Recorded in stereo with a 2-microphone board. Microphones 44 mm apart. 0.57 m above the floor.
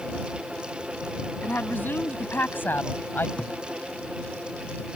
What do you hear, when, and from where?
1.4 s a woman speaking: 50° left (ahead or behind); by 3.3 s 55° left (ahead or behind)
3.4 s a thud: 25° left (ahead or behind)